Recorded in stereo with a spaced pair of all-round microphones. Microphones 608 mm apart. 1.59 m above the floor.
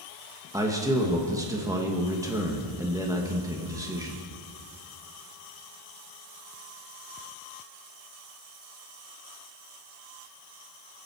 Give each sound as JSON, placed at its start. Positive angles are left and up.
{"t": 0.5, "sound": "a man speaking", "side_deg": -5, "distance_m": 1.9}